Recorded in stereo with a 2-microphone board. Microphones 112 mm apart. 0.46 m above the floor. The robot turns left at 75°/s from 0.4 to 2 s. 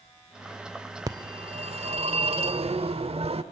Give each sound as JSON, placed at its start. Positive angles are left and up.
{"t": 1.1, "sound": "a phone ringing", "azimuth_deg": -35, "distance_m": 0.9}